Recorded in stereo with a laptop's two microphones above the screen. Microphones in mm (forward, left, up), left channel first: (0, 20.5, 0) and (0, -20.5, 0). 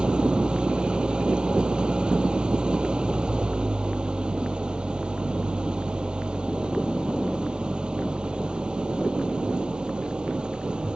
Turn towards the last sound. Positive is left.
turn(degrees=-25)  # may be behind; listen again after turning